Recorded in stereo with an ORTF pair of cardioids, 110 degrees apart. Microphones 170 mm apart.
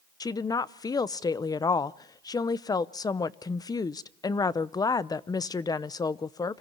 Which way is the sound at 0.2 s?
25° left.